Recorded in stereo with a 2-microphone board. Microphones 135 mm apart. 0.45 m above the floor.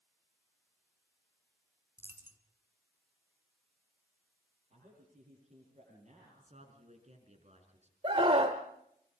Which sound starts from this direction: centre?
A dropped coin, at 2.0 s.